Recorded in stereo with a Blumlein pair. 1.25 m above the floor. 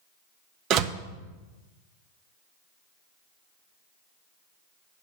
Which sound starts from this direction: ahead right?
A door slam, at 0.7 s.